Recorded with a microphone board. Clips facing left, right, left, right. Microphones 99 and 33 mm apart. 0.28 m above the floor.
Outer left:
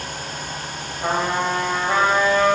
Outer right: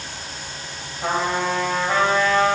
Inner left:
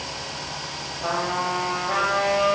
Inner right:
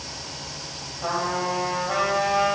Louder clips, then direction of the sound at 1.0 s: Outer left 1 dB, even; 20° left (ahead or behind).